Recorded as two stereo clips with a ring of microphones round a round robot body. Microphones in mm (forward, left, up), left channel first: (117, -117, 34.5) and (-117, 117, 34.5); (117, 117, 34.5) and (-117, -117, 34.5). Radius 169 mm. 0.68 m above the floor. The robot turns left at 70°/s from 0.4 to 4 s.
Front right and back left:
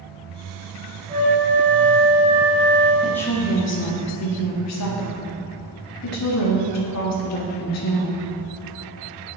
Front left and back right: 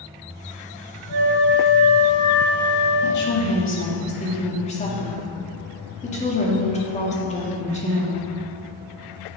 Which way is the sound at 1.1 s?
155° right.